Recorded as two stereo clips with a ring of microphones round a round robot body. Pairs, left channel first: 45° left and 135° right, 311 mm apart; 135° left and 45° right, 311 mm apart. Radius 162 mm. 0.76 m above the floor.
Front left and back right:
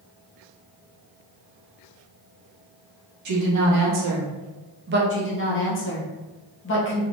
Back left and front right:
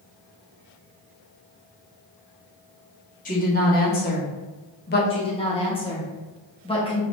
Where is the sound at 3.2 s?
165° right, 1.6 m; by 5.0 s straight behind, 0.8 m.